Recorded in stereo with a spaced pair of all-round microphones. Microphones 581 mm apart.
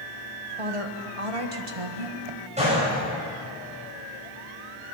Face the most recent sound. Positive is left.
turn(degrees=-10)  # may be behind; listen again after turning